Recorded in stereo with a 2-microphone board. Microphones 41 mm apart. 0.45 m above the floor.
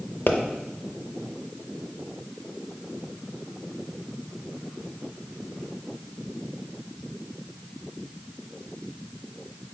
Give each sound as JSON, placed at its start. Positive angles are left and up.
{"t": 0.3, "sound": "a pop", "side_deg": 55, "distance_m": 0.5}